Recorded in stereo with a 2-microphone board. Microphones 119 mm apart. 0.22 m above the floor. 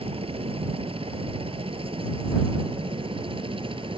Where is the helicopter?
50° right (ahead or behind); by 4.0 s 45° right (ahead or behind).